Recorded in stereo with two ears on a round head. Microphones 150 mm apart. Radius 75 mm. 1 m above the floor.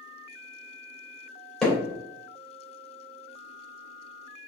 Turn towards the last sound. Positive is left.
turn(degrees=5)  # may be behind; listen again after turning